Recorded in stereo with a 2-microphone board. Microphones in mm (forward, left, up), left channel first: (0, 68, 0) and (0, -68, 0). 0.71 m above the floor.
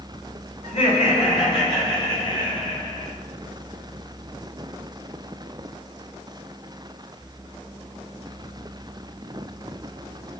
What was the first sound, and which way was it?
Laughter, 55° left (ahead or behind).